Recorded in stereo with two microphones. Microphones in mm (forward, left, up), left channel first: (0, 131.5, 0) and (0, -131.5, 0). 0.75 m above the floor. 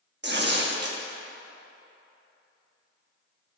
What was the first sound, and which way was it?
Tearing paper, 40° right (ahead or behind).